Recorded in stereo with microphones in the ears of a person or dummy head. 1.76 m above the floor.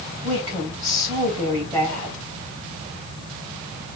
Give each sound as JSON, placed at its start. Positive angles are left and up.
{"t": 0.2, "sound": "a woman speaking", "side_deg": -30, "distance_m": 2.5}